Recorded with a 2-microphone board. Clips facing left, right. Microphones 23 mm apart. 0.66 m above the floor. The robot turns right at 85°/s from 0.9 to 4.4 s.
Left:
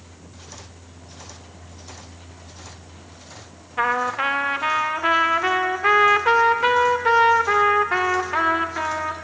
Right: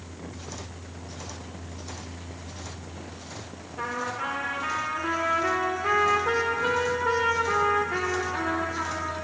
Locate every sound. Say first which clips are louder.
3.8 s a trumpet: left 9 dB; 65° left, 0.6 m; by 9.1 s 120° left, 0.6 m